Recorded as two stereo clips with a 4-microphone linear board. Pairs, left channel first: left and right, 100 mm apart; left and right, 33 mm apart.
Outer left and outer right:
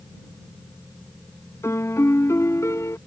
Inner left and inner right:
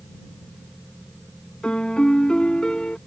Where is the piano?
30° left (ahead or behind).